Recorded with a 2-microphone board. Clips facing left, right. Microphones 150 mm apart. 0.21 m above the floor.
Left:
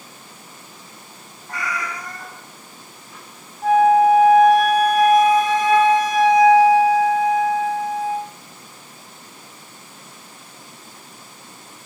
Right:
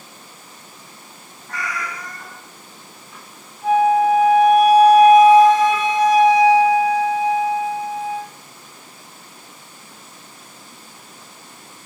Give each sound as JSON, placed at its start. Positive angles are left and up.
{"t": 1.5, "sound": "a cat meowing", "side_deg": 30, "distance_m": 0.5}
{"t": 3.6, "sound": "a flute", "side_deg": 50, "distance_m": 0.7}